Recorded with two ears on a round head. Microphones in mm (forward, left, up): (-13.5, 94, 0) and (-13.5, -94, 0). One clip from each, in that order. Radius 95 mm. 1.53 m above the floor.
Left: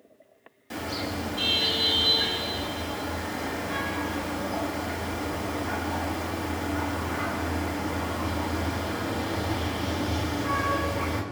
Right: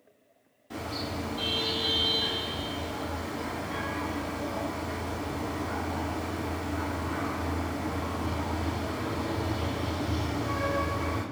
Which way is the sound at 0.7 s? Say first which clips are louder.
Left 3 dB; 40° left (ahead or behind).